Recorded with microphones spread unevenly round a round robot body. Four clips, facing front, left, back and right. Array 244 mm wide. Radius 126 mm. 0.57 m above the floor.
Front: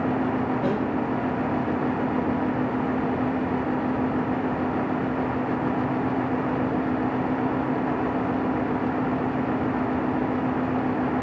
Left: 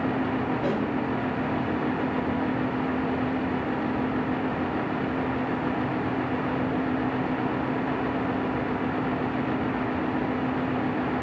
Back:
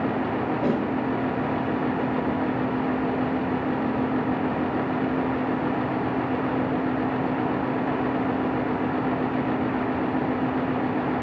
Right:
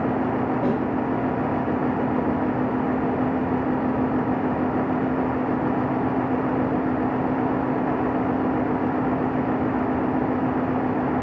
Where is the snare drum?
110° right, 1.9 m.